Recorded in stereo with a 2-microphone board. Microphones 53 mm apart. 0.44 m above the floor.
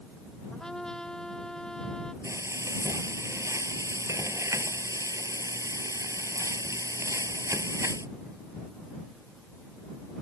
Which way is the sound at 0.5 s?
10° left (ahead or behind).